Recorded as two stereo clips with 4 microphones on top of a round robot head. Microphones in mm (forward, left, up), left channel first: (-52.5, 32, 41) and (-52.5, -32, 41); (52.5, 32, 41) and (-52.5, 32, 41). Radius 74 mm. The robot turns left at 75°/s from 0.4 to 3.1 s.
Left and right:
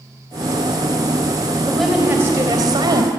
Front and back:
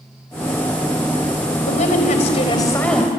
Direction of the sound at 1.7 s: 15° left.